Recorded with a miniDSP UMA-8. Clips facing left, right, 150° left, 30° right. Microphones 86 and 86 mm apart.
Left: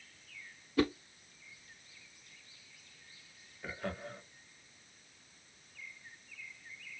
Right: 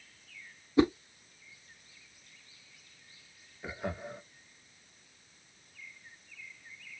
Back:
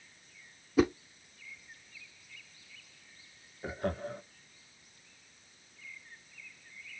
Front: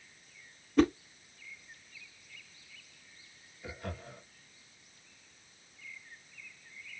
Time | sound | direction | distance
0.8 | a whoosh | 130° right | 0.6 m
3.6 | laughter | 165° right | 1.4 m